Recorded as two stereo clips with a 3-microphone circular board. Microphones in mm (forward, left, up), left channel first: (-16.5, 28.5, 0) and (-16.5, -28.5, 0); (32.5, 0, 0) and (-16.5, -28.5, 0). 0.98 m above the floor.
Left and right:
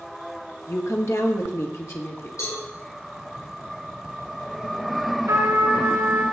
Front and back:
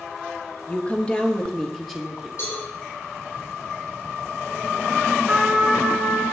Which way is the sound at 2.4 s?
65° left.